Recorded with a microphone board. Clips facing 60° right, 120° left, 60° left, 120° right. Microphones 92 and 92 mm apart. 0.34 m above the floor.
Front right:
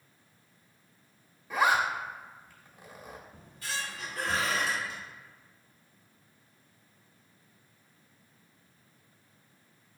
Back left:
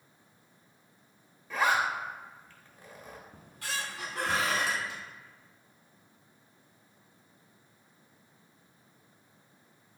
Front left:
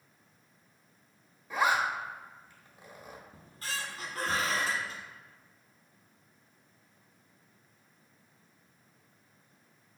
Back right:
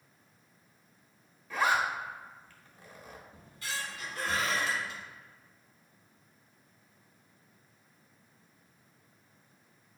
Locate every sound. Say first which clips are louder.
1.5 s a zipper: front right 2 dB, front left 1 dB; 5° left, 0.7 m
3.3 s a squeak: back left 1 dB, even; 110° left, 0.8 m